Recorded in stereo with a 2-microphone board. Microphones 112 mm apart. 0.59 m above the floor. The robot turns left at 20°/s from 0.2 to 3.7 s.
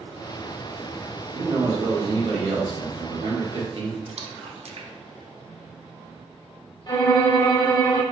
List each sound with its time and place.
1.3 s a man speaking: 40° right, 1.2 m; by 4.0 s 90° right, 1.2 m
4.1 s a splash: 70° right (ahead or behind), 0.5 m
6.9 s a violin: 35° left (ahead or behind), 0.9 m